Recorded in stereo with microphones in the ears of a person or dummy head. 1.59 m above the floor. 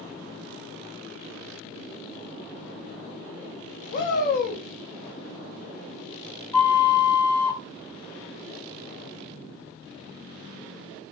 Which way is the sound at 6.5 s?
Centre (ahead or behind).